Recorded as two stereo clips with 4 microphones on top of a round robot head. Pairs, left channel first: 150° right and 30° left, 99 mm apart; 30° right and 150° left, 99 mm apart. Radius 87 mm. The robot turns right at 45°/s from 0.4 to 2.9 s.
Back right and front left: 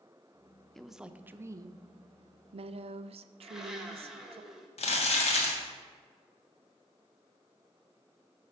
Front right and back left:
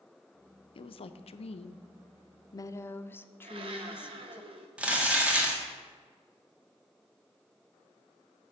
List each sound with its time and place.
0.8 s a woman speaking: 60° right, 0.5 m; by 4.4 s 35° left, 0.5 m
3.4 s a blender: 120° left, 1.0 m
4.8 s crumpling: 135° right, 1.5 m